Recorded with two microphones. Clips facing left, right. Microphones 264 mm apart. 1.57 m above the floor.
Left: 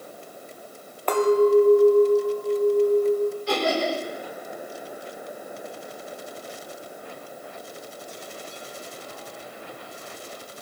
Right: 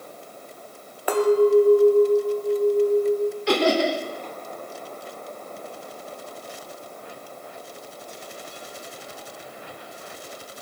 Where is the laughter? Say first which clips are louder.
Right 4 dB; 80° right, 1.1 m.